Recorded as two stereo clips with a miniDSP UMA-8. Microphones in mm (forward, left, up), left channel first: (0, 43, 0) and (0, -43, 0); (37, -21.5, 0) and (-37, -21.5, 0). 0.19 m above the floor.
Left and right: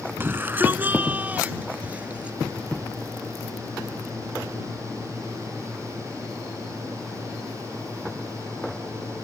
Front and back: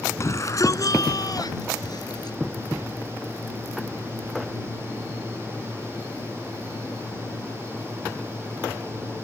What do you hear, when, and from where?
0.2 s a shout: 30° right; by 2.4 s 15° right